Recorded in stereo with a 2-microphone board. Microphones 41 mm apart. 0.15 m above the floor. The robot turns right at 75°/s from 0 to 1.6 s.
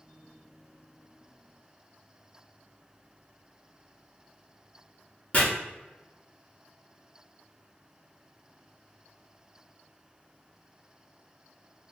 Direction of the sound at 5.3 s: 30° left (ahead or behind).